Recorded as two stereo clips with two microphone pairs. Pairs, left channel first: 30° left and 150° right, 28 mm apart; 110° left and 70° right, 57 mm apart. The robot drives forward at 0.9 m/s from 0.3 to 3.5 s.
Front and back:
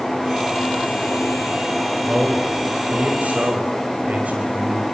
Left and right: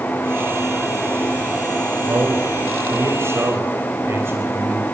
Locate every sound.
2.1 s a man speaking: 100° right, 4 m; by 4.8 s 115° right, 4.5 m